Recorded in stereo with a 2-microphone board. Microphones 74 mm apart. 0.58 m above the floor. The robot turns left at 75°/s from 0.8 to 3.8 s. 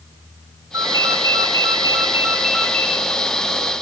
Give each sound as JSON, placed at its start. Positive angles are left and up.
{"t": 0.7, "sound": "a ringtone", "azimuth_deg": -50, "distance_m": 2.5}